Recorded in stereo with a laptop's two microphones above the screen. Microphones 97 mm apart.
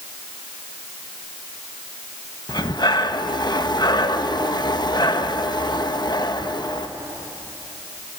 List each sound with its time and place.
2.5 s breathing: 45° left (ahead or behind), 1.1 m